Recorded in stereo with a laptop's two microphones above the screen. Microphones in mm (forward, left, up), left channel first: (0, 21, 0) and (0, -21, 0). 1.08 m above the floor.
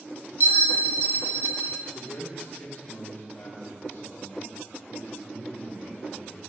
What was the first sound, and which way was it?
A bell, 60° right (ahead or behind).